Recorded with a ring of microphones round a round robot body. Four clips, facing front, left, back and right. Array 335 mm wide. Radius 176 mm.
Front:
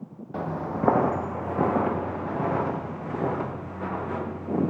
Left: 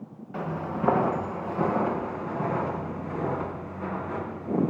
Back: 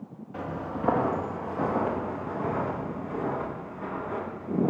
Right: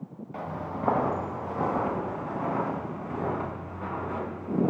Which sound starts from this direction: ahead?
Footsteps, at 0.3 s.